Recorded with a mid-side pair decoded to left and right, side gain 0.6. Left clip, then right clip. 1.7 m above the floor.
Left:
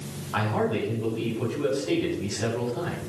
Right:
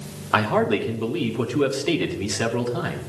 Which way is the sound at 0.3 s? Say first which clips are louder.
Right 6 dB; 60° right.